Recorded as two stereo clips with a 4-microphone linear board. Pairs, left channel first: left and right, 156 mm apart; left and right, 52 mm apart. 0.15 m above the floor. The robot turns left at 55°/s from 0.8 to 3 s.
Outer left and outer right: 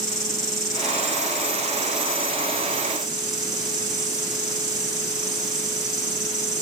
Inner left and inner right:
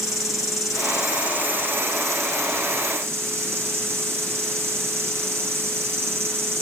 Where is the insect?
Straight ahead, 1.6 m; by 6.6 s 120° right, 1.6 m.